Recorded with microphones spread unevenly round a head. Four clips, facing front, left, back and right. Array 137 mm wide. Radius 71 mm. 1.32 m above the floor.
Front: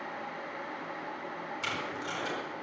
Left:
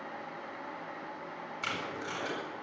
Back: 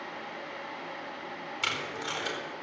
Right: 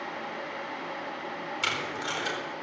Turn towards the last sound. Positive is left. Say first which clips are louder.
# right 3 dB, back 2 dB
turn(degrees=-170)